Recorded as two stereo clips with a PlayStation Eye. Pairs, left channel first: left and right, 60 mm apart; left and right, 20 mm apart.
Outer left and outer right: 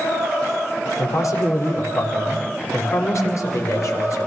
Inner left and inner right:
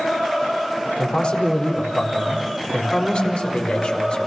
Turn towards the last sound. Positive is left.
turn(degrees=60)  # may be behind; listen again after turning